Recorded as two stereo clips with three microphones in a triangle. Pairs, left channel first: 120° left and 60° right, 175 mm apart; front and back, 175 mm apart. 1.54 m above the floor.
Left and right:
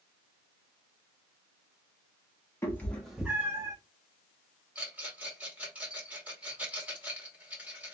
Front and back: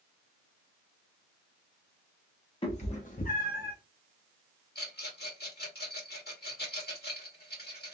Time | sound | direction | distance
2.6 | a cat meowing | 50° left | 1.3 m
4.8 | a rattle | 20° left | 2 m